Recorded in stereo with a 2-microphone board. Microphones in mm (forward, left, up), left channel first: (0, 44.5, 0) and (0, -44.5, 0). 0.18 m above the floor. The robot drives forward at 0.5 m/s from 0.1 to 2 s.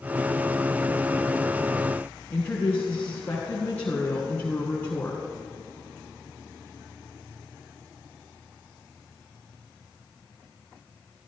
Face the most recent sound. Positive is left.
turn(degrees=20)  # may be behind; listen again after turning